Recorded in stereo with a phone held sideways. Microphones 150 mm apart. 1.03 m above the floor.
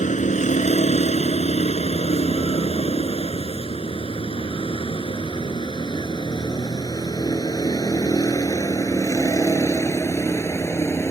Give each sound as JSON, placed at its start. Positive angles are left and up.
{"t": 0.0, "sound": "a vehicle", "side_deg": 55}